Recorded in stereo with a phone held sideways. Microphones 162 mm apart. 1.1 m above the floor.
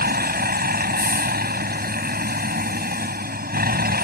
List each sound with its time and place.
0.0 s a vehicle: 80° right